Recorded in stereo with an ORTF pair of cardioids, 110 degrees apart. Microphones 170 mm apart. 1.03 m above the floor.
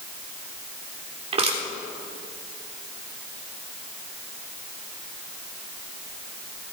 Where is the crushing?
40° right, 3 m.